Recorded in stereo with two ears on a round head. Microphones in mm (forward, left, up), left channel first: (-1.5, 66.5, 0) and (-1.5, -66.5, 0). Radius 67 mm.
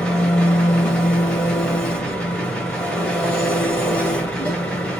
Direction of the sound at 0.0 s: 5° left (ahead or behind).